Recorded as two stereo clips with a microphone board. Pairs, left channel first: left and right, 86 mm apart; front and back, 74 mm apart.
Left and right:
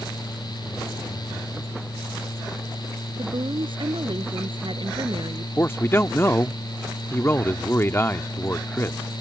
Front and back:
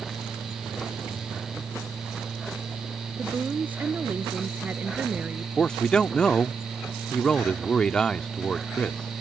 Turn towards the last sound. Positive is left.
turn(degrees=65)